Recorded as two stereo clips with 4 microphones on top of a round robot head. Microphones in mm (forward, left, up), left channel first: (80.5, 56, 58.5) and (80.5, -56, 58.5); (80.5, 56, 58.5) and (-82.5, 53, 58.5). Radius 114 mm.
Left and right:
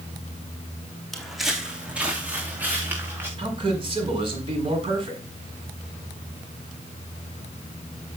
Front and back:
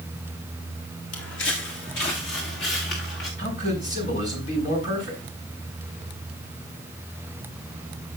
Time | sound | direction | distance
1.1 | footsteps | straight ahead | 2.5 m
3.4 | a man speaking | 50° right | 6 m